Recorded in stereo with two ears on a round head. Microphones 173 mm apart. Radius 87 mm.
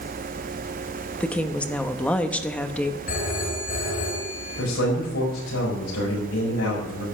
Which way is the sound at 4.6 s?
75° left (ahead or behind).